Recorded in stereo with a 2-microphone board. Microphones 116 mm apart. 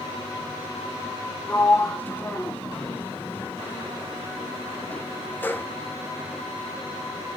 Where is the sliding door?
15° left (ahead or behind), 0.9 m.